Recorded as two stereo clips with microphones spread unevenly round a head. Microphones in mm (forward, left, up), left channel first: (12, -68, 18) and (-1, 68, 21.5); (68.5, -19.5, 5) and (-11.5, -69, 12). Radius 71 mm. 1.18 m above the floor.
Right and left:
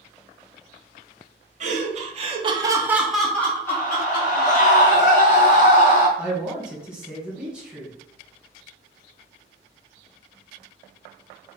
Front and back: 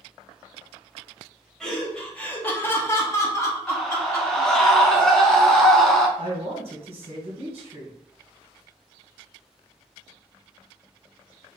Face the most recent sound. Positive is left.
turn(degrees=180)